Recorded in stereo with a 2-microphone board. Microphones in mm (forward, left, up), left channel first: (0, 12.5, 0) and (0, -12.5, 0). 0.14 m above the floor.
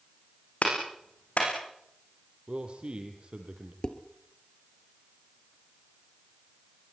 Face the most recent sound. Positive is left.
turn(degrees=35)  # may be behind; listen again after turning